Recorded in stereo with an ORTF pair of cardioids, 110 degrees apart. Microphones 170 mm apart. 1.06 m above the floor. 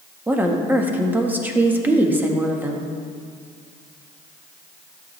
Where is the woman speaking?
10° right, 1.3 m.